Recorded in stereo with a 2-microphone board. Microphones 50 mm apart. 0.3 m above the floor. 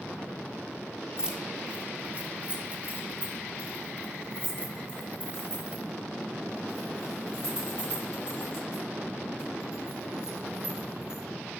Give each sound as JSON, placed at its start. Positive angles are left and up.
{"t": 1.2, "sound": "keys jangling", "side_deg": -15, "distance_m": 1.0}